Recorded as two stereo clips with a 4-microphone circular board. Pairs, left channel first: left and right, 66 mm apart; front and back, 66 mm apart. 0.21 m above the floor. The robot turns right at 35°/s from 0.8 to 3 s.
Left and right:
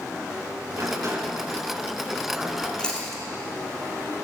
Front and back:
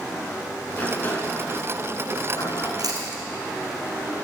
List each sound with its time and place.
0.7 s a sliding door: 65° right, 2 m; by 2.7 s straight ahead, 2 m
2.8 s chewing: 165° left, 2 m; by 3.2 s 175° left, 2 m